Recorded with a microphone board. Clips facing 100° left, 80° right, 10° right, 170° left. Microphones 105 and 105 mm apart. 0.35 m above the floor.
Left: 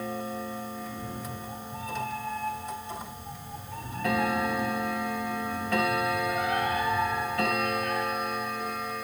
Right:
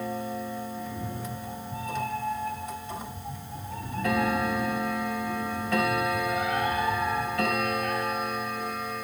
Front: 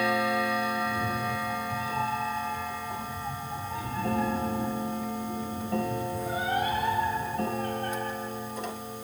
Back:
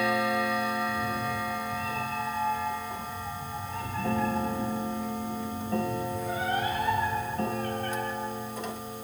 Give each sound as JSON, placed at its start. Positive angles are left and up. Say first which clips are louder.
{"t": 0.8, "sound": "a cat meowing", "louder": "right 2 dB, even", "azimuth_deg": -55, "distance_m": 4.5}